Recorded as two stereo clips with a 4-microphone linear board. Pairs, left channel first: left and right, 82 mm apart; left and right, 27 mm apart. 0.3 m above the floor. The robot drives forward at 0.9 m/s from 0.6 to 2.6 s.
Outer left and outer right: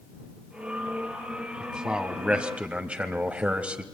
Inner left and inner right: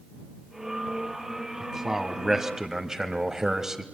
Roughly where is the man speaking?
Centre.